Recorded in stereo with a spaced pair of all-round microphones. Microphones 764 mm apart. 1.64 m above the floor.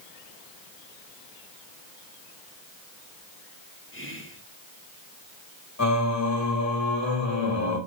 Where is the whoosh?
No whoosh in this recording.